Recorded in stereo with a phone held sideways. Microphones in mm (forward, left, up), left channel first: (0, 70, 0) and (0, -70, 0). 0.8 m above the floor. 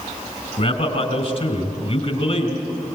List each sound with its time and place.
0.6 s a man speaking: 50° left (ahead or behind), 3.5 m